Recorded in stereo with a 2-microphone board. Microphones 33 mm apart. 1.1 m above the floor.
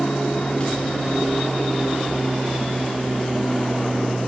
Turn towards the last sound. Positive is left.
turn(degrees=30)  # may be behind; listen again after turning